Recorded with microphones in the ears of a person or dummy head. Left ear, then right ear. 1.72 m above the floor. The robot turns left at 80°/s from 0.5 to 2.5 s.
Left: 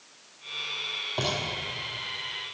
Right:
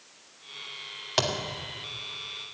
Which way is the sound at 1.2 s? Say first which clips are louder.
Right 4 dB; 50° right (ahead or behind).